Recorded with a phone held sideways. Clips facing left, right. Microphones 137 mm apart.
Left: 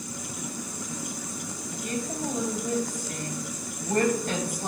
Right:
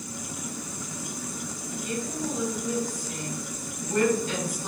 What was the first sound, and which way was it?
A woman speaking, 60° left (ahead or behind).